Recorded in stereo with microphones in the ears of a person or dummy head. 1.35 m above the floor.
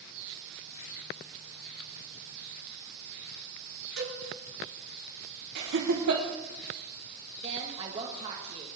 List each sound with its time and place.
4.0 s a cowbell: 85° right, 7 m
5.5 s laughter: 65° right (ahead or behind), 1.2 m
7.4 s a woman speaking: 30° right (ahead or behind), 1.4 m